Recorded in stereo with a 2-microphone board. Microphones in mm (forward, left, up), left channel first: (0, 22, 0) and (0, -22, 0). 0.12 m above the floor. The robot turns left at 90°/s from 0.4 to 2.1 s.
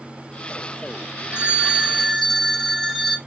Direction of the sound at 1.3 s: 25° right (ahead or behind).